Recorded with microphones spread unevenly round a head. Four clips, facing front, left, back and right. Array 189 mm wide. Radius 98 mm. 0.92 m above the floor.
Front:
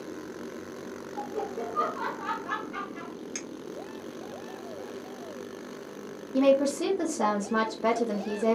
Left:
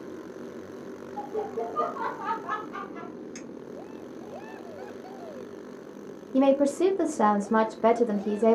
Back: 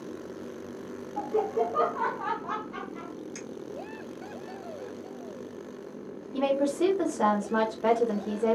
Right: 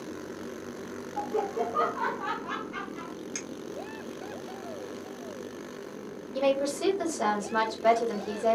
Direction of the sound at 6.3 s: 80° left.